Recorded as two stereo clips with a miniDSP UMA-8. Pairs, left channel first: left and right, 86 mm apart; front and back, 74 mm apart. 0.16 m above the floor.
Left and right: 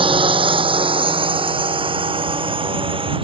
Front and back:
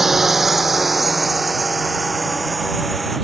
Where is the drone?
95° right; by 3.2 s 90° right.